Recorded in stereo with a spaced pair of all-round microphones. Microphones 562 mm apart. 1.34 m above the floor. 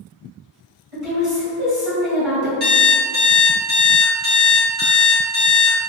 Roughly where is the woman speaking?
Right.